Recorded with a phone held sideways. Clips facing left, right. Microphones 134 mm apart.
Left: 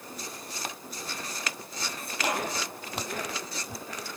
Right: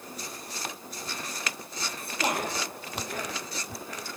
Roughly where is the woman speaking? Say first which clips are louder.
Right 1 dB; right.